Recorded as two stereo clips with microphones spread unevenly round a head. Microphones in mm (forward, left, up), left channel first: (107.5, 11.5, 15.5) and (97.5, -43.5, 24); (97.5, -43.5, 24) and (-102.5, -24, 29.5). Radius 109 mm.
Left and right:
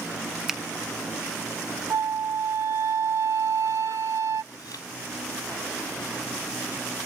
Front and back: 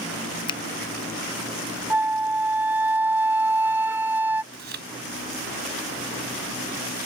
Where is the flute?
105° right.